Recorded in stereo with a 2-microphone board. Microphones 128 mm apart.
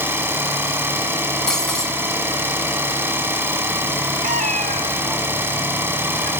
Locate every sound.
0.0 s an engine running: 15° right (ahead or behind), 1.7 m
1.5 s breaking glass: 5° left (ahead or behind), 2 m
4.2 s a cat meowing: 80° right, 1.1 m